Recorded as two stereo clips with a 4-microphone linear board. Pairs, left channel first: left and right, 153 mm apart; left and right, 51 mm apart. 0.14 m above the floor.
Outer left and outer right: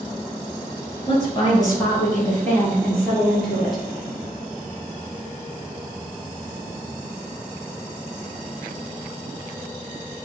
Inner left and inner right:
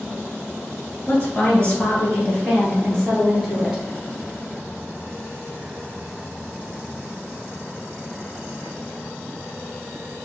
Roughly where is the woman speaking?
Left.